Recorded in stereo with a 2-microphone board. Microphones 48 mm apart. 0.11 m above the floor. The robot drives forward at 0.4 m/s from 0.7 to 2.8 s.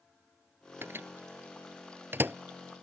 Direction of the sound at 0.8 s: 55° right (ahead or behind).